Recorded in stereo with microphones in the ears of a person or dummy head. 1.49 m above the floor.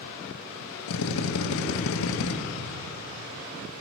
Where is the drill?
80° left, 1.5 m.